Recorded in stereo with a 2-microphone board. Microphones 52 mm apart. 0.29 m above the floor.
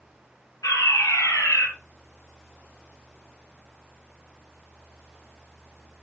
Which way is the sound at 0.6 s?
75° left (ahead or behind).